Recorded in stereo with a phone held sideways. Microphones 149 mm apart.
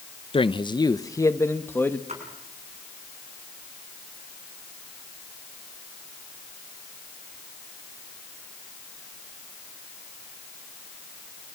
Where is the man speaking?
35° left (ahead or behind), 0.6 m; by 2.0 s 15° left (ahead or behind), 1.6 m.